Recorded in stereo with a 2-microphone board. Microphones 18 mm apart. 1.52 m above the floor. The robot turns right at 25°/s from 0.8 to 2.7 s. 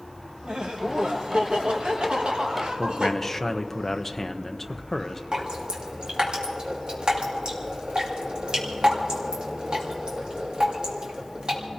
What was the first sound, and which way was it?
Laughter, 120° right.